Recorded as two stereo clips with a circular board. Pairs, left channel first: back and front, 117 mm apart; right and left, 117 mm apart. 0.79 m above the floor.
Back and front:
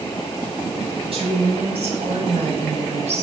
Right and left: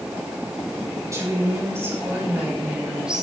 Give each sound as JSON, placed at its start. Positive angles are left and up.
{"t": 1.1, "sound": "a woman speaking", "azimuth_deg": 30, "distance_m": 4.5}